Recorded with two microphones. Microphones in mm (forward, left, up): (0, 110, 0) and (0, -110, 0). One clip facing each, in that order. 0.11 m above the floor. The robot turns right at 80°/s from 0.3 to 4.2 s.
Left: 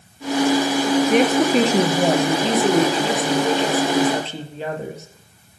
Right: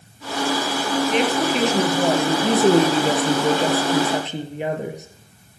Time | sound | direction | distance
1.1 | a woman speaking | 90° left | 2.5 m